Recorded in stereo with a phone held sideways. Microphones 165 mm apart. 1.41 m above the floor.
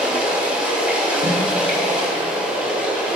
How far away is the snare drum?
About 3.5 m.